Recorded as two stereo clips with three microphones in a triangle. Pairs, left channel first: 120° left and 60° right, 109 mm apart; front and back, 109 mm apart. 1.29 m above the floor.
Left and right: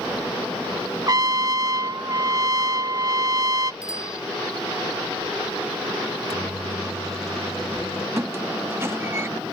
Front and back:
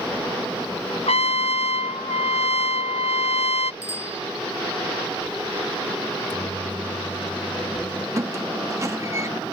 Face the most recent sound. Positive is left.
turn(degrees=-120)